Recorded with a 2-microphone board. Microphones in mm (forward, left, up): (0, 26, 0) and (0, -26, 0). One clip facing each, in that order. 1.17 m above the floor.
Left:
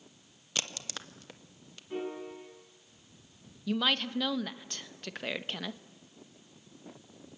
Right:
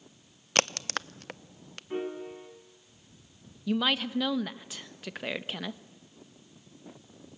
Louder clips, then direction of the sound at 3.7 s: Right 2 dB; 5° right (ahead or behind).